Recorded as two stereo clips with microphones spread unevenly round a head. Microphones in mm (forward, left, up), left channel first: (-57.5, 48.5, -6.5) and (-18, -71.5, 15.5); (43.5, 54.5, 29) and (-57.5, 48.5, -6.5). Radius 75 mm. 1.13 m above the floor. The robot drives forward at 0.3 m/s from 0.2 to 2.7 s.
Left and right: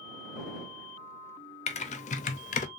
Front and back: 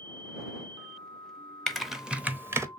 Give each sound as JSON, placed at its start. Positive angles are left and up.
{"t": 1.7, "sound": "typing on a keyboard", "azimuth_deg": 65, "distance_m": 0.6}